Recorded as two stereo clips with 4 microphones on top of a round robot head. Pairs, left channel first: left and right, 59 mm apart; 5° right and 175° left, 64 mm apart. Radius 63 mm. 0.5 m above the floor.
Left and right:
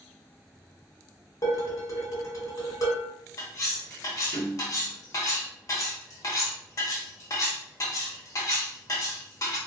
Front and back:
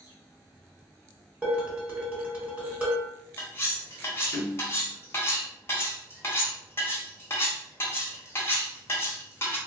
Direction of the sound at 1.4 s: 110° left.